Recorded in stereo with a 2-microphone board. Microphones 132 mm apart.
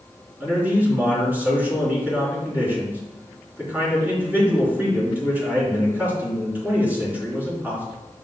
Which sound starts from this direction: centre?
A man speaking, at 0.4 s.